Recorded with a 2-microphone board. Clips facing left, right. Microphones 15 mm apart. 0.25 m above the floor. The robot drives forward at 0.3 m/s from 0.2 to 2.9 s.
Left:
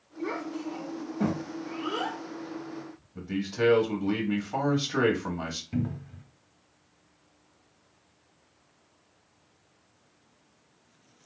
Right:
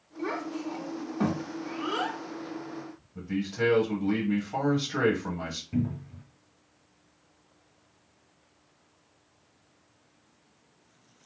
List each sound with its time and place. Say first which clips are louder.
0.2 s a child speaking: right 1 dB; 35° right (ahead or behind), 1.3 m
3.1 s a man speaking: left 1 dB; 15° left (ahead or behind), 1.1 m
5.7 s a cupboard door: right 4 dB; 25° left (ahead or behind), 0.7 m